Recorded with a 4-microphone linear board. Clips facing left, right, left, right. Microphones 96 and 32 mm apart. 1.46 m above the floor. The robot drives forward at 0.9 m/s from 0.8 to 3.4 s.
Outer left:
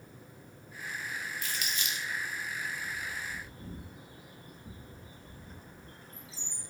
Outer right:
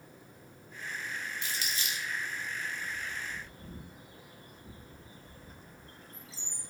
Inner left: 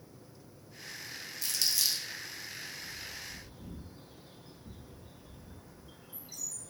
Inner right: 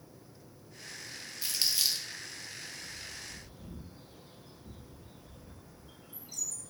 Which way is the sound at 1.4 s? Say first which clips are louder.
Even, inner right 1 dB; 25° right (ahead or behind).